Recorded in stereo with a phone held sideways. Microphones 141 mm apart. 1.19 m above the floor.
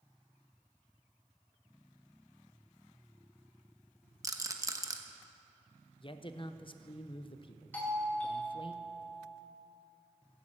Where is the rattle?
25° right (ahead or behind), 0.9 m.